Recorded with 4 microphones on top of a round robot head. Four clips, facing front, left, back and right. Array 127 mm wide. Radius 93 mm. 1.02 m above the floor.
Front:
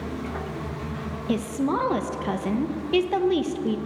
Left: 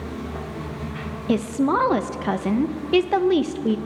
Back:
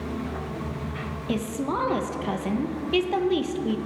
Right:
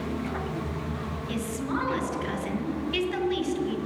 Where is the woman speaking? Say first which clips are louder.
Left 11 dB, front 3 dB; 80° left, 1.1 m.